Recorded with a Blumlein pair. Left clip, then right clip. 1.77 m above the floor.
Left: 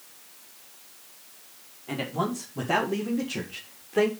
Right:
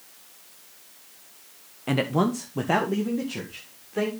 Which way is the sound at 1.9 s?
50° right.